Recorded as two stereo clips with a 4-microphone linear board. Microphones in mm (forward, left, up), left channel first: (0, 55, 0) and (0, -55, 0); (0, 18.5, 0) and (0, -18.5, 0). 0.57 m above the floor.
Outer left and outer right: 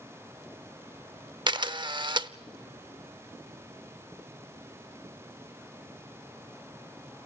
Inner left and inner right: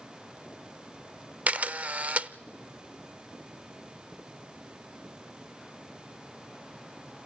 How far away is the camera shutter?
About 0.6 m.